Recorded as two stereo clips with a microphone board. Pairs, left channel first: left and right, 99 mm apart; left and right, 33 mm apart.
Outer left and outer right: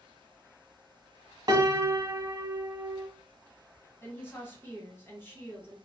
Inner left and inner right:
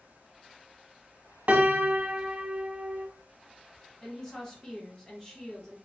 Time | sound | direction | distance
1.5 | a piano | 45° right (ahead or behind) | 0.6 m
4.0 | a woman speaking | 20° left (ahead or behind) | 1.6 m